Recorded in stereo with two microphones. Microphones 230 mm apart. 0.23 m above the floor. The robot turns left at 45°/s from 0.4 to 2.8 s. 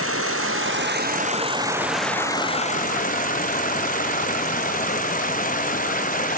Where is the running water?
110° right; by 6.4 s 145° left.